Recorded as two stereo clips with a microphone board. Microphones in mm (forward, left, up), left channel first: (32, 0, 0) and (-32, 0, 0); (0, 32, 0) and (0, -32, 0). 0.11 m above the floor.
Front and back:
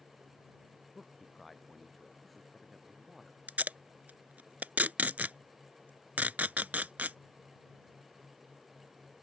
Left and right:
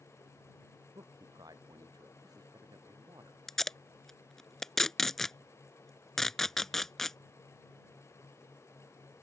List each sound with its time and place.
0.9 s a man speaking: 90° right
3.5 s tape being pulled: 165° left